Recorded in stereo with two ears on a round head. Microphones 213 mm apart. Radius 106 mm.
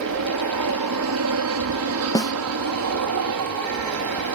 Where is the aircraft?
65° right (ahead or behind).